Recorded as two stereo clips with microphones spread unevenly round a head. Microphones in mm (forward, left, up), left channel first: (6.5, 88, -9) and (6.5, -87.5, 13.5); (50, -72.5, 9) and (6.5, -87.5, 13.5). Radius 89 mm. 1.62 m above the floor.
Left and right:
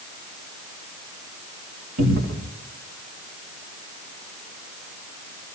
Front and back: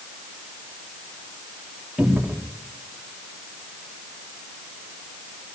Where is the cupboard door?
90° right, 4.5 m.